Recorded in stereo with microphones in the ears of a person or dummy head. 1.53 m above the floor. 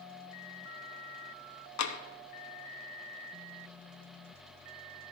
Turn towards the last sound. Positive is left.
turn(degrees=85)